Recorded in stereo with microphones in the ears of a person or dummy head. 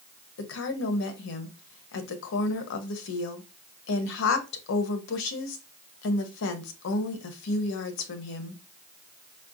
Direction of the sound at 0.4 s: 70° left (ahead or behind).